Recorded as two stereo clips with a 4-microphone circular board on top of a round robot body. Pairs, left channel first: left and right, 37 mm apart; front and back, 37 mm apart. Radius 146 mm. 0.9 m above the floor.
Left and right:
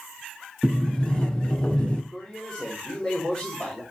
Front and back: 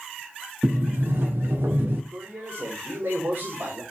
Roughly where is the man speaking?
Behind.